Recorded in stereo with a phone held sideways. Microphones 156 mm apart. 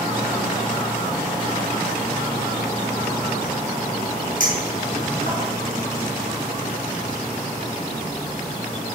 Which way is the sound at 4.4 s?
55° right (ahead or behind).